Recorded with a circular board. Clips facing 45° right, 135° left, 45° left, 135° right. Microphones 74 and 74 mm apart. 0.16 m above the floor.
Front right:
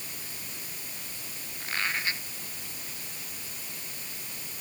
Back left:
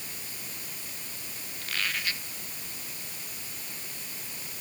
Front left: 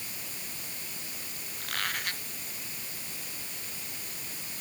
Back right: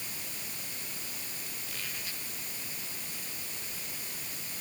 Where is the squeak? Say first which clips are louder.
Front right 2 dB, front left 11 dB; 20° left.